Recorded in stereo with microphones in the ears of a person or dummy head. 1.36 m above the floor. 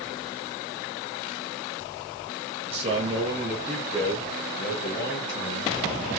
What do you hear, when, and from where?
2.6 s a man speaking: 40° right (ahead or behind), 1.1 m; by 5.7 s 55° left (ahead or behind), 1.8 m